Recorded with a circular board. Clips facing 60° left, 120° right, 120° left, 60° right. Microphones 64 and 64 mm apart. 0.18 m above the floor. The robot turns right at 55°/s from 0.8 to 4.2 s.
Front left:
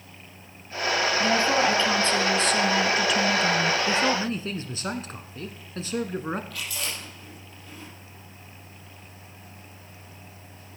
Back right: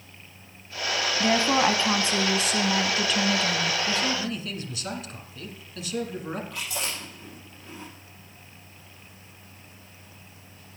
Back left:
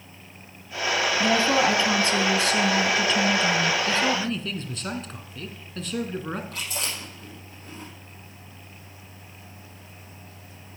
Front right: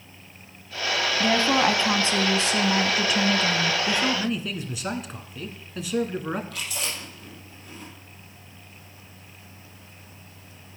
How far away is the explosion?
No explosion in this recording.